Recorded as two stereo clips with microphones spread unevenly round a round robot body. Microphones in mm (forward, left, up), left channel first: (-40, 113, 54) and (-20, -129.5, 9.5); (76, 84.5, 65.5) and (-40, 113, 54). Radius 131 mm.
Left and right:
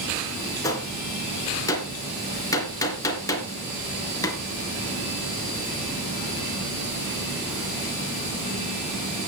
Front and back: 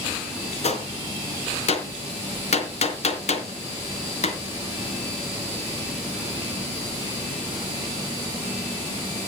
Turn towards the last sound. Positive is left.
turn(degrees=15)